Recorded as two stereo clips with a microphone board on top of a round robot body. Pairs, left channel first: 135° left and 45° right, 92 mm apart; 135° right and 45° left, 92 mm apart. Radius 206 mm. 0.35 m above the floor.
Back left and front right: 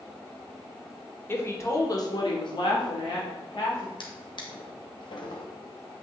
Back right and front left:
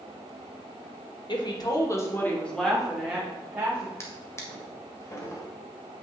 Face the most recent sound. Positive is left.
turn(degrees=165)